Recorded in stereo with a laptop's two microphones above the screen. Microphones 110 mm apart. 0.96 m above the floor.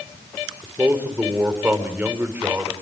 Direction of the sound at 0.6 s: 15° right (ahead or behind).